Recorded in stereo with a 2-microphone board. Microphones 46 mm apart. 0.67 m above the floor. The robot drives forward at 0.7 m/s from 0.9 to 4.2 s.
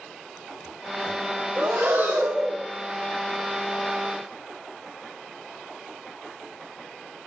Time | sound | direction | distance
1.6 | breathing | 30° right (ahead or behind) | 1.9 m